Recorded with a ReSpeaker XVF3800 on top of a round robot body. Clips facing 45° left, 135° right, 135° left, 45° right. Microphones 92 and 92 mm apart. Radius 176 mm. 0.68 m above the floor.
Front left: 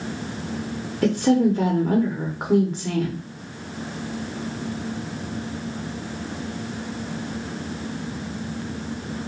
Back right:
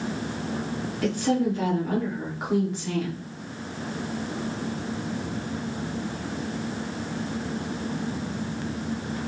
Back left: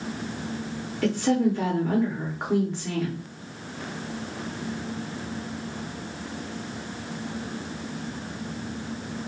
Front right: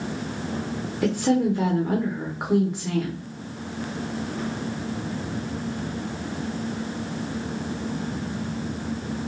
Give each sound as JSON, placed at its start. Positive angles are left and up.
{"t": 1.0, "sound": "a woman speaking", "azimuth_deg": 30, "distance_m": 1.0}